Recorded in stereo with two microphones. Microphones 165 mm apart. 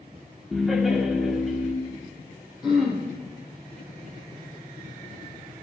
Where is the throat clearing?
5° right (ahead or behind), 3.5 m.